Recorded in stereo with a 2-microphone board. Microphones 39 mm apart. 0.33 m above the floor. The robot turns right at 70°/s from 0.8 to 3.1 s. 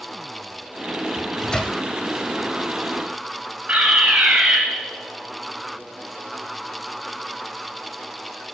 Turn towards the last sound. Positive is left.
turn(degrees=-35)  # may be behind; listen again after turning